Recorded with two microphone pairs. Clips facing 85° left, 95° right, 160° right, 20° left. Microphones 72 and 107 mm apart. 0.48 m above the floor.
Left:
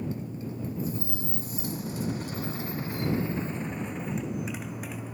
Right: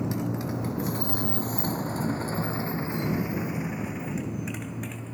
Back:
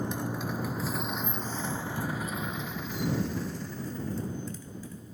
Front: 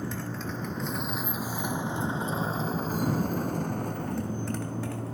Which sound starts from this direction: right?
A motorcycle, at 0.0 s.